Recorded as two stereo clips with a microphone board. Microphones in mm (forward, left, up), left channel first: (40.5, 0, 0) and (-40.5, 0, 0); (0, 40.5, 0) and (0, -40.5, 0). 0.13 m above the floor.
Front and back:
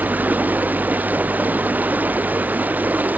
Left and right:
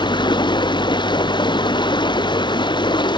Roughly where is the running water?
Left.